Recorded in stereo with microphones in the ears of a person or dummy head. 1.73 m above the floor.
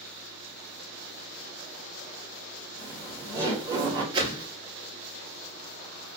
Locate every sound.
2.8 s laughter: 20° right (ahead or behind), 0.9 m
4.1 s a whoosh: 25° right (ahead or behind), 0.6 m